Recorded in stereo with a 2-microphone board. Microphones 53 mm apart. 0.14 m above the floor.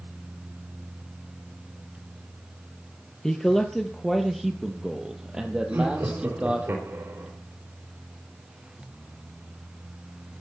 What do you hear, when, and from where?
3.2 s a man speaking: 10° left (ahead or behind), 2.5 m; by 6.7 s 25° right (ahead or behind), 4 m
5.7 s laughter: 50° right (ahead or behind), 4 m